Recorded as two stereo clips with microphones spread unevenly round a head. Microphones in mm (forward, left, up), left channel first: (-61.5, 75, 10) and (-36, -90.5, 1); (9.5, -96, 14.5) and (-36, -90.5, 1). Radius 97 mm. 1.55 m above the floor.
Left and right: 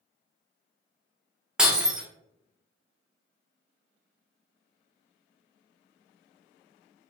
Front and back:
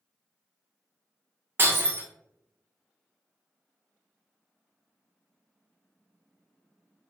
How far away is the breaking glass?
About 0.7 m.